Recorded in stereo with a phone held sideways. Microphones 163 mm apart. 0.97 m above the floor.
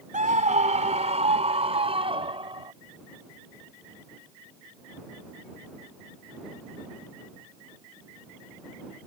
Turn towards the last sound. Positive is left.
turn(degrees=-30)  # may be behind; listen again after turning